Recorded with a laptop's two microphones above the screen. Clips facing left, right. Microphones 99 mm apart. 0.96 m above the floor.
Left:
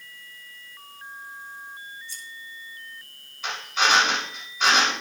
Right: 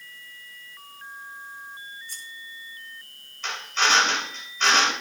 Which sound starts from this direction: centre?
A drill, at 3.4 s.